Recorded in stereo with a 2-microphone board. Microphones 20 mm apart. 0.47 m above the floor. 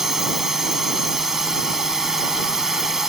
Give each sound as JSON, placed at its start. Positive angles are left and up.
{"t": 0.0, "sound": "a drone", "side_deg": -25}